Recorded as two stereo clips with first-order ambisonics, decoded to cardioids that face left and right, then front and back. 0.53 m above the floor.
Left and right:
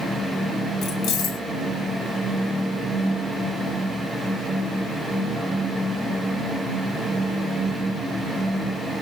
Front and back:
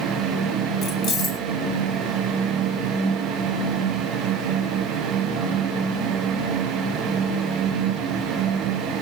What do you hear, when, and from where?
0.8 s keys jangling: 50° left, 1.3 m